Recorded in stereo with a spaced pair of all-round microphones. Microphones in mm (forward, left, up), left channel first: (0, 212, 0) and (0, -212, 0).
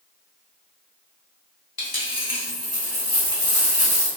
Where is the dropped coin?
60° left (ahead or behind), 1.3 m.